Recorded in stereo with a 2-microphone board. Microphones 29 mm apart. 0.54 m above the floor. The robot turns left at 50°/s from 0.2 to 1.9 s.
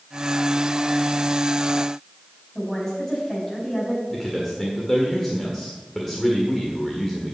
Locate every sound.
2.5 s a woman speaking: 15° left (ahead or behind), 4 m
4.1 s a man speaking: 10° left (ahead or behind), 1.5 m